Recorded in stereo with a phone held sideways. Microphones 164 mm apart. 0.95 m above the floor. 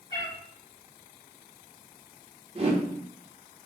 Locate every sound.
0.1 s a cat meowing: 25° left (ahead or behind), 1.6 m
2.5 s a whoosh: 35° right (ahead or behind), 0.7 m